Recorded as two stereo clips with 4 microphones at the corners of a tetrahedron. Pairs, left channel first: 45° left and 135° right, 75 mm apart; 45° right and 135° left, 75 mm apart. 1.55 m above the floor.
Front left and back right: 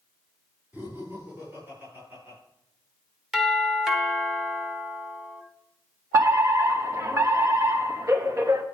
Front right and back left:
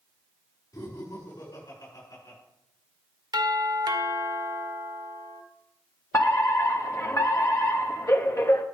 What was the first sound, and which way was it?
Laughter, 70° right.